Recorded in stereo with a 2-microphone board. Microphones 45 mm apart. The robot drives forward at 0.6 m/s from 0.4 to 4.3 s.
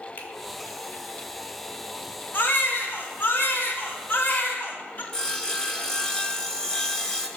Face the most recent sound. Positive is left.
turn(degrees=10)  # may be behind; listen again after turning